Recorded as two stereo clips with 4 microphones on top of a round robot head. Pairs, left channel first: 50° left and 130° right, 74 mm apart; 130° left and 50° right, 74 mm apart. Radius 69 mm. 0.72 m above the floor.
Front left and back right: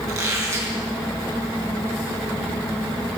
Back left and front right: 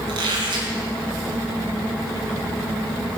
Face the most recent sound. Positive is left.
turn(degrees=-75)